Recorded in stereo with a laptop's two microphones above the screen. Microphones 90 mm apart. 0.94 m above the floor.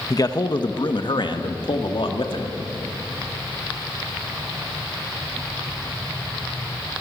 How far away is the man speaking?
About 1.2 m.